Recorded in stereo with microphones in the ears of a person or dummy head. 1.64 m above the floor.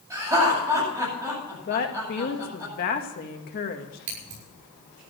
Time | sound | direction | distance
0.1 | laughter | 15° right (ahead or behind) | 9.5 m
1.7 | a woman speaking | 45° left (ahead or behind) | 2 m
4.1 | scissors | 50° right (ahead or behind) | 6 m